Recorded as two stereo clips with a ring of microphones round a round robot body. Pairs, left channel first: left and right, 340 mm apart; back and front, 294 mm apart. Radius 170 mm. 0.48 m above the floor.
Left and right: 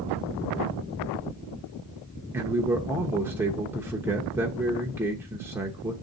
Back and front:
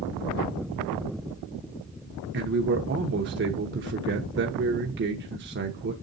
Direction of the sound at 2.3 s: 10° right.